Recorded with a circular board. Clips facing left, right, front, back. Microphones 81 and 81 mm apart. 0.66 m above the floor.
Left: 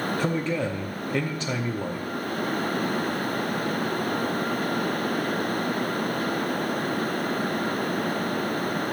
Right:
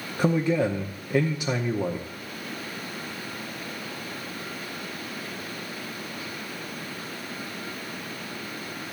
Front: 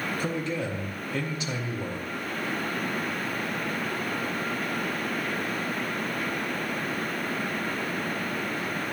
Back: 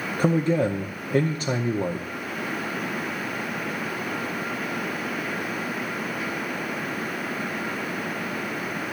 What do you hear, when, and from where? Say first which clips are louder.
0.2 s a man speaking: right 8 dB, back 13 dB; 160° right, 0.7 m